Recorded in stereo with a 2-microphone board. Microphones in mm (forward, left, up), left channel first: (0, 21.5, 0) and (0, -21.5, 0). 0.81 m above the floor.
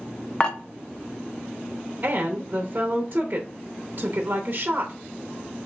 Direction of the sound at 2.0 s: 40° right (ahead or behind).